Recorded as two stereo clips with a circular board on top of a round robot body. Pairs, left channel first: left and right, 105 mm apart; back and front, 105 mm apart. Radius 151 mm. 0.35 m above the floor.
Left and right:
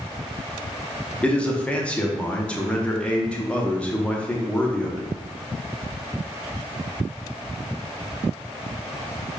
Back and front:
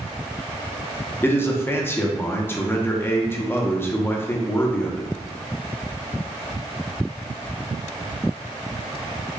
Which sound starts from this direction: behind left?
A man speaking, at 1.2 s.